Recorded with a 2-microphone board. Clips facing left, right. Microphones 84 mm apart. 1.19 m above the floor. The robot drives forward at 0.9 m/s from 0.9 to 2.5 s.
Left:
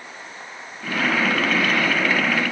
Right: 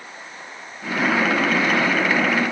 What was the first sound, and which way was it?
Only background noise.